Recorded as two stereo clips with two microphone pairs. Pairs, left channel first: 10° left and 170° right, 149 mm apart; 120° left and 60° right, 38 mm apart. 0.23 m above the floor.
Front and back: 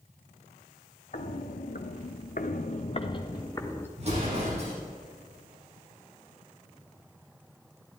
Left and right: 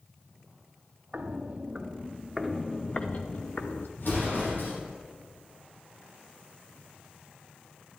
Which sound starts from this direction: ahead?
Footsteps, at 1.1 s.